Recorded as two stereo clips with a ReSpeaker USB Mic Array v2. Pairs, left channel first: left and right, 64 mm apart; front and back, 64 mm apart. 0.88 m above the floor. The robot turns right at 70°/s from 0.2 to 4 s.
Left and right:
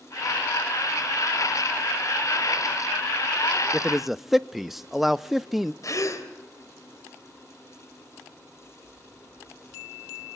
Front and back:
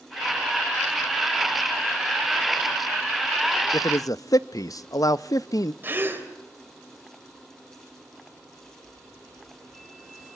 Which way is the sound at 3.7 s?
20° right.